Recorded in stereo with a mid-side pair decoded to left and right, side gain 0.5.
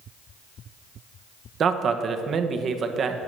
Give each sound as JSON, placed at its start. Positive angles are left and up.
{"t": 1.6, "sound": "a man speaking", "azimuth_deg": -50, "distance_m": 1.1}